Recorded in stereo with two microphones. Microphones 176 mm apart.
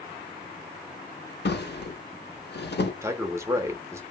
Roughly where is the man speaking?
Centre.